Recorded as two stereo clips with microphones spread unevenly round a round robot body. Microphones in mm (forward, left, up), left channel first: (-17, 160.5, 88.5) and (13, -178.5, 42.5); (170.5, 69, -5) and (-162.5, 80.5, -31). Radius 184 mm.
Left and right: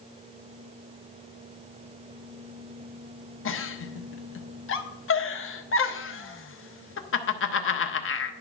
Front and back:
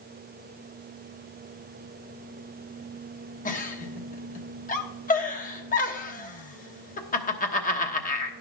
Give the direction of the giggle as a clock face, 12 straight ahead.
10 o'clock.